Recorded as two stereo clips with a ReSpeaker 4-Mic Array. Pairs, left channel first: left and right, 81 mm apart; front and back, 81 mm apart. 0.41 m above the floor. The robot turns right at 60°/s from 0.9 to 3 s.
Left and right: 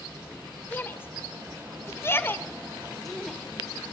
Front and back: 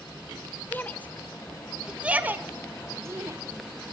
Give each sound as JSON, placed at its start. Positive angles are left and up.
{"t": 0.7, "sound": "a shout", "azimuth_deg": 45, "distance_m": 1.4}